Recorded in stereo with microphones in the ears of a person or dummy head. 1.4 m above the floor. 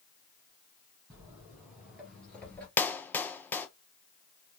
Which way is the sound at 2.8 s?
10° left (ahead or behind).